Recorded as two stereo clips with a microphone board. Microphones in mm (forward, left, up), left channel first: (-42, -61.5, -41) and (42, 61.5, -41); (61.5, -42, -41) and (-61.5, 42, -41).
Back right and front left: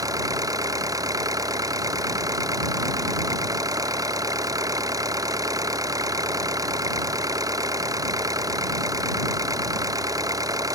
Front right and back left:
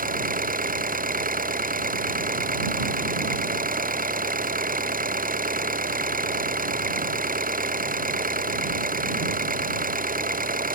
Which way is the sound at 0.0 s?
125° left.